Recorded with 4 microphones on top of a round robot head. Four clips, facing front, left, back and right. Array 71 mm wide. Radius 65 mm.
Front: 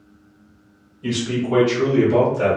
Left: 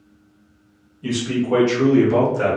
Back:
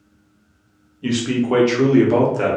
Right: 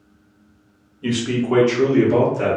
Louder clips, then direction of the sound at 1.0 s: Right 1 dB, back 3 dB; 130° right.